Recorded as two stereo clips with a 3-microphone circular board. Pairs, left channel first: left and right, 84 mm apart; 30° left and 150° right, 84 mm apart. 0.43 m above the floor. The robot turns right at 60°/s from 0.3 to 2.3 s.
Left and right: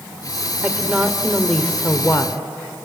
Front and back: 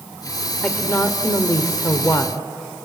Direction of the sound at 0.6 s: 40° right.